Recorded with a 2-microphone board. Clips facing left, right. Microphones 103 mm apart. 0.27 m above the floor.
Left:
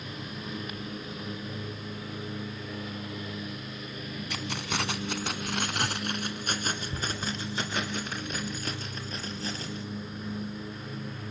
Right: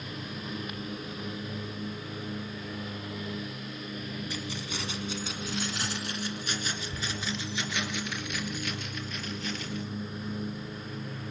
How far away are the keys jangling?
About 1.5 m.